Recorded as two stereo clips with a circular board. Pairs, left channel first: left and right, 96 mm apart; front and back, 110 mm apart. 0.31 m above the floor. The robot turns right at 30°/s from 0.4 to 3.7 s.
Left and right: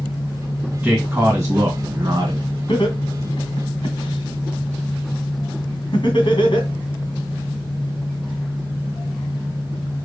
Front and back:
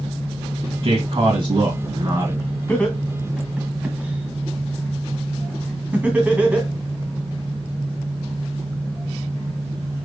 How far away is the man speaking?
About 2.5 m.